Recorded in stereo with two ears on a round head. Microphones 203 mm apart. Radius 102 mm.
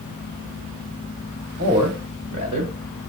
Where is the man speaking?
70° right (ahead or behind), 2.5 m; by 2.7 s 50° right (ahead or behind), 2 m.